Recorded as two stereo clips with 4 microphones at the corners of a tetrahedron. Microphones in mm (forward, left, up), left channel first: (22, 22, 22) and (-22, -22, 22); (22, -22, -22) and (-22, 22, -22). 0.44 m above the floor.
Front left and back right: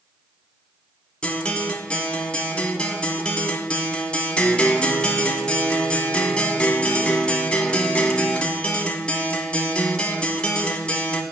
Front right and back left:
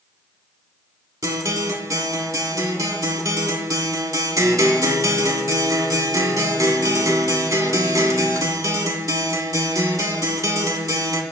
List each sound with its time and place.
1.2 s a guitar: 115° left, 0.7 m